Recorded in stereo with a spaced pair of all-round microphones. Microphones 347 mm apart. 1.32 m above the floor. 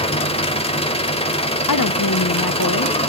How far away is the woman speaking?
About 0.6 m.